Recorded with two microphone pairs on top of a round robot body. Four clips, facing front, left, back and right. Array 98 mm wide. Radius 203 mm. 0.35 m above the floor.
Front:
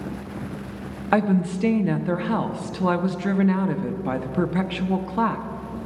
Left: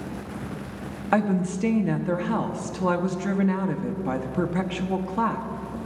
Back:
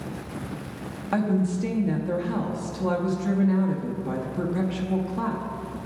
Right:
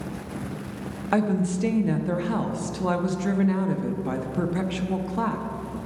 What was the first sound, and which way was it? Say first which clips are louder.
A woman speaking: even, front 3 dB; 35° left.